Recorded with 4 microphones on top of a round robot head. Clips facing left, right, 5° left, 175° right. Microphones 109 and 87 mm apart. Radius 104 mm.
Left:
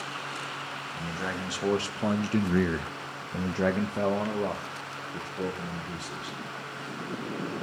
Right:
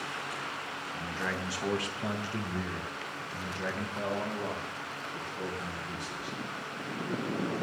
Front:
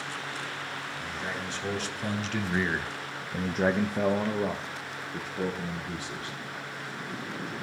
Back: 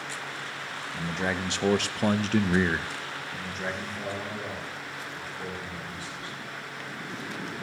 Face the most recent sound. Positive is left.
turn(degrees=20)